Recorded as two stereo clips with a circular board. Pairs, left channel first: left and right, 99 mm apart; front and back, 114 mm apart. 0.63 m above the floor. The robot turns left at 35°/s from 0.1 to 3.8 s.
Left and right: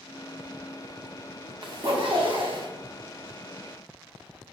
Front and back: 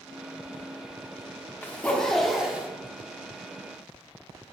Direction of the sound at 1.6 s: 70° right.